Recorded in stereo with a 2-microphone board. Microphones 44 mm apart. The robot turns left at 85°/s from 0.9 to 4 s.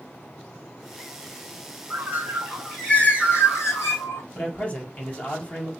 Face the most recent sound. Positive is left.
turn(degrees=30)  # may be behind; listen again after turning